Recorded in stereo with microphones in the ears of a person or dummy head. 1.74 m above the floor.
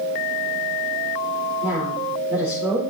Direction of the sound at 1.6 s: 10° right (ahead or behind).